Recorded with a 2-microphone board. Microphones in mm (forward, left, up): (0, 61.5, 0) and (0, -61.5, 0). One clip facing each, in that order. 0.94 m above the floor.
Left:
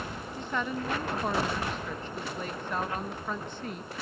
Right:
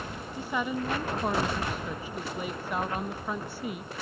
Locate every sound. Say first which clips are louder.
0.4 s a woman speaking: right 2 dB; 10° right (ahead or behind), 0.6 m